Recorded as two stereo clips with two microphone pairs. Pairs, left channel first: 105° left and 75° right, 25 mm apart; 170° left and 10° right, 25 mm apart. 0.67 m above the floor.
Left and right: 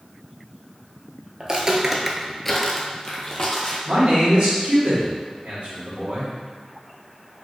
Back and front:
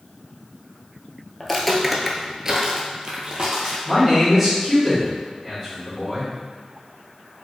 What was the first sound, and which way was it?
Footsteps, 115° right.